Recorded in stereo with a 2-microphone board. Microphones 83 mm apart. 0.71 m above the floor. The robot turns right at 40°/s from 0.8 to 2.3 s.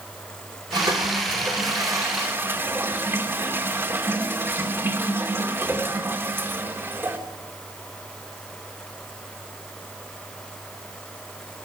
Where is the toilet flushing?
90° right, 2 m; by 7.2 s 30° right, 2 m.